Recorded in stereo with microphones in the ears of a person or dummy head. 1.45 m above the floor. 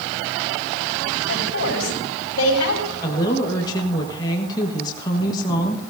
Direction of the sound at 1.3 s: 70° left (ahead or behind).